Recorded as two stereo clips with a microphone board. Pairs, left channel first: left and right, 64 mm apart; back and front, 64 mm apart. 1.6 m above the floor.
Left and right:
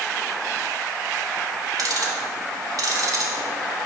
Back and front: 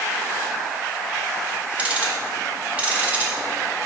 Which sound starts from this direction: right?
Ticking, at 1.8 s.